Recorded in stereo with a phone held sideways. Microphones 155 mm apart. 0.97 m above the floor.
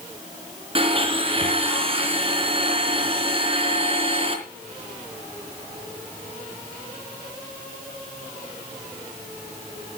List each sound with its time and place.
0.8 s a blender: 35° right (ahead or behind), 3 m